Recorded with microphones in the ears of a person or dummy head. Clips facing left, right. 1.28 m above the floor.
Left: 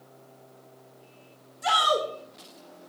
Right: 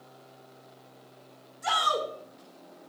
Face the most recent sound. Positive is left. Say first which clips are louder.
# left 4 dB
turn(degrees=35)  # may be behind; listen again after turning